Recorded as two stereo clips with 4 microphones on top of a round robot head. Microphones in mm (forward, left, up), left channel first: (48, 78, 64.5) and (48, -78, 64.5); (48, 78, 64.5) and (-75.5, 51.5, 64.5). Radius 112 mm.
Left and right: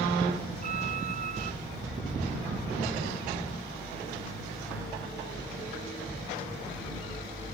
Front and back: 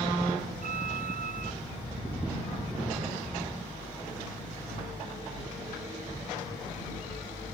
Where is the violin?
140° right.